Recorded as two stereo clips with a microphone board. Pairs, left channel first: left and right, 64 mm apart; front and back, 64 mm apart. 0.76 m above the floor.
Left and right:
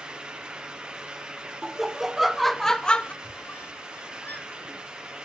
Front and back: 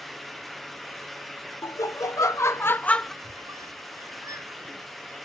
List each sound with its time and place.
1.6 s laughter: 10° right, 1.4 m; by 3.1 s 75° left, 0.6 m
3.2 s a squeak: 150° left, 1.9 m